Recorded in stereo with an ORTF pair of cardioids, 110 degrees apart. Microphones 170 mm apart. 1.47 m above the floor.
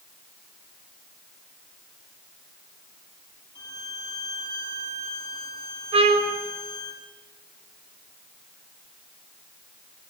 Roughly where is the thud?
No thud in this recording.